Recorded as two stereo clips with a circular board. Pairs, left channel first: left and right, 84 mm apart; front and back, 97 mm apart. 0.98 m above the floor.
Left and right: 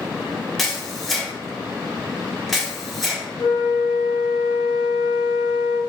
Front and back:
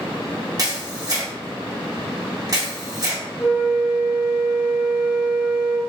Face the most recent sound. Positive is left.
turn(degrees=110)